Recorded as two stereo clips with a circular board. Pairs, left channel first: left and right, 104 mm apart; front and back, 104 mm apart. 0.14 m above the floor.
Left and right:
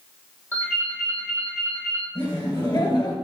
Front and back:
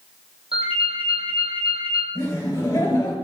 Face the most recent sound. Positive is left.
turn(degrees=55)